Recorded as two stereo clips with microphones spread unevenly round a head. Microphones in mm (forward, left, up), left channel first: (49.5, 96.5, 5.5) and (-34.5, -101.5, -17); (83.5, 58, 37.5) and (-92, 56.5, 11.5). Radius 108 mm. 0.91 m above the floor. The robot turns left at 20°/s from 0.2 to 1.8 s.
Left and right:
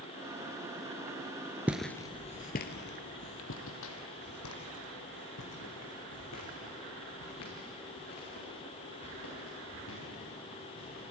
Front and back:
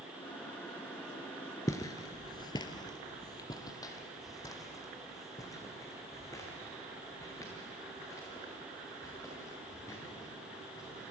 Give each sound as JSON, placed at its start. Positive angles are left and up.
{"t": 1.7, "sound": "footsteps", "azimuth_deg": -25, "distance_m": 0.9}